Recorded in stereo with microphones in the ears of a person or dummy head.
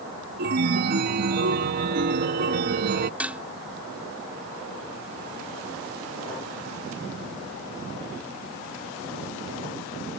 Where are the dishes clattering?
5° right (ahead or behind).